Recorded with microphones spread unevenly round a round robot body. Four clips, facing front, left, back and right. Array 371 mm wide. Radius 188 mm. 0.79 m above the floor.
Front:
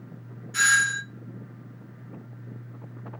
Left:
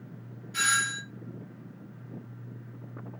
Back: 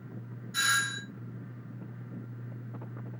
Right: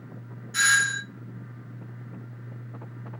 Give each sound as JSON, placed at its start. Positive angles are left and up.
{"t": 0.5, "sound": "a doorbell", "azimuth_deg": -65, "distance_m": 1.2}